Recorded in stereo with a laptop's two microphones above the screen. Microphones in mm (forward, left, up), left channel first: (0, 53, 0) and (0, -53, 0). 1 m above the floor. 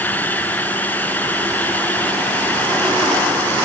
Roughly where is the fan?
Centre.